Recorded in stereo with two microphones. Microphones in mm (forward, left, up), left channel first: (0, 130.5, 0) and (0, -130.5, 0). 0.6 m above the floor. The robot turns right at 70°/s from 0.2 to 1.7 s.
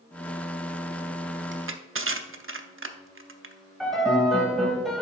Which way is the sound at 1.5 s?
45° right (ahead or behind).